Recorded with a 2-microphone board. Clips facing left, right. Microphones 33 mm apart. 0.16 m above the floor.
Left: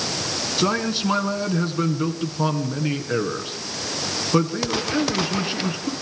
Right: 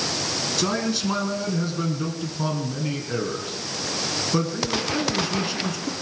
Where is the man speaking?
25° left (ahead or behind), 2 m.